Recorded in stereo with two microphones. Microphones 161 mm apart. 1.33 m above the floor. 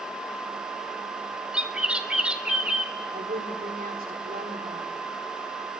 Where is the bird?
5° right (ahead or behind), 2.5 m.